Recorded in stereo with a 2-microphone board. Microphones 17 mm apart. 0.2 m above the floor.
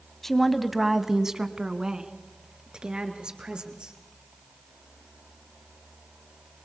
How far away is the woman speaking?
About 1.1 m.